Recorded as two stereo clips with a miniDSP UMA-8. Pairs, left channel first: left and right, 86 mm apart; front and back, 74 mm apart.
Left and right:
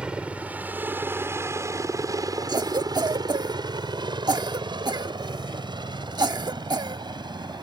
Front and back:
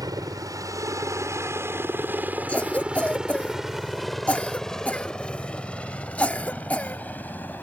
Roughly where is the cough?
Ahead right.